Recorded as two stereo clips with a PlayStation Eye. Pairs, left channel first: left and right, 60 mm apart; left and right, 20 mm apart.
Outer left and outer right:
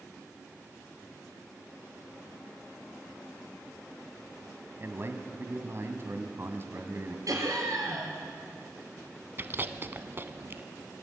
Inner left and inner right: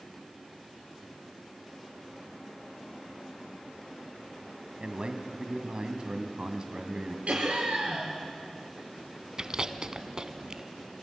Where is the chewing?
40° right (ahead or behind), 0.8 m.